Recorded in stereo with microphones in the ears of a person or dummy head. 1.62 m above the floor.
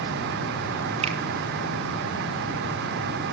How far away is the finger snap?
About 1.9 m.